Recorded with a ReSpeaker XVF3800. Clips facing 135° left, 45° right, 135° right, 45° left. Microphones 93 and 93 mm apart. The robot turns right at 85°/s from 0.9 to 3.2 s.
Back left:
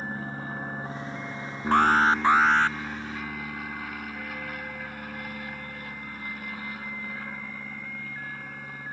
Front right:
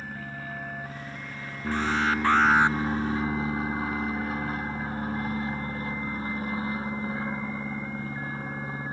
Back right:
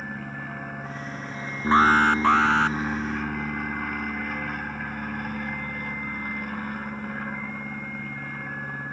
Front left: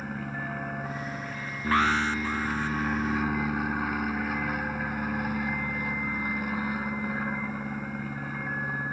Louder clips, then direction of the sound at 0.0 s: Back left 3 dB, front left 1 dB; 130° left.